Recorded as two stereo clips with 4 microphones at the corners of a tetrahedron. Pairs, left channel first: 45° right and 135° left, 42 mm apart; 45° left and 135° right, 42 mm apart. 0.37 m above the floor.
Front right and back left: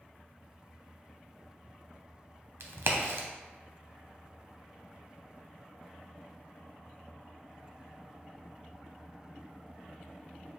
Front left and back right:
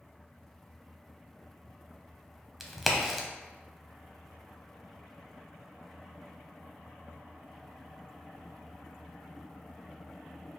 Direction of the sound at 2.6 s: 140° left.